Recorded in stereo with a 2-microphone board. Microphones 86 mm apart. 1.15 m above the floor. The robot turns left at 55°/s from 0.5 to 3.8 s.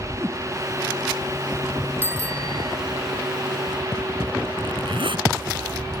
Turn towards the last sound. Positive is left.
turn(degrees=-75)  # may be behind; listen again after turning